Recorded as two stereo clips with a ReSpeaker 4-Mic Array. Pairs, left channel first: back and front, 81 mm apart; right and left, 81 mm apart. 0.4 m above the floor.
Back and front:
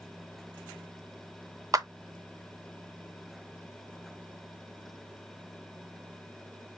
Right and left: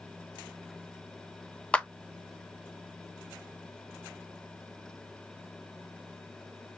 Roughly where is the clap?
Ahead.